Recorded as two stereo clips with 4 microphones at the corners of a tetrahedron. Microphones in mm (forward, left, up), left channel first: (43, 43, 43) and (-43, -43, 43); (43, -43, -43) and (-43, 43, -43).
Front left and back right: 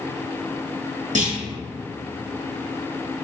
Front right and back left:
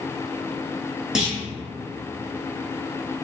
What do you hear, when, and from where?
1.1 s a clunk: 140° right, 1.2 m